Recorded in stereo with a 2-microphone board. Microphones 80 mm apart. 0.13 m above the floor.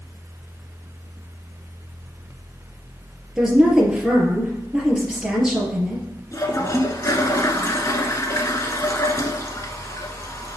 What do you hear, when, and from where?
3.4 s a woman speaking: 10° right (ahead or behind), 2.5 m
6.3 s a toilet flushing: 40° left (ahead or behind), 1.1 m